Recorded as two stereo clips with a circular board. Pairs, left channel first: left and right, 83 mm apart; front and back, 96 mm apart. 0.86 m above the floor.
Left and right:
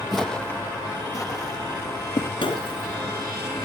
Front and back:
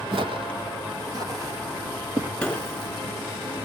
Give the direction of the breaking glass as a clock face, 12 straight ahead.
9 o'clock.